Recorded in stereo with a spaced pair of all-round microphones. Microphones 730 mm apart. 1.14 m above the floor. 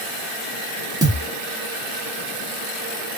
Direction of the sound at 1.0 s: 5° right (ahead or behind).